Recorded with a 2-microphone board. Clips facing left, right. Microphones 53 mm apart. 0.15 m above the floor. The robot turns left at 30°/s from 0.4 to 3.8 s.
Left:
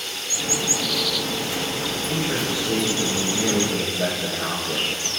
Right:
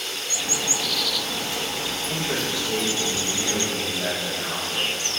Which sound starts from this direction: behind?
A man speaking, at 2.1 s.